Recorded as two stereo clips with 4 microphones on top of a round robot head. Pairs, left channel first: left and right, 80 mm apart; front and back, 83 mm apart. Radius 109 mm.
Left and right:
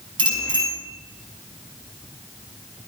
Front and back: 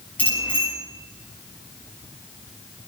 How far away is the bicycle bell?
About 6 m.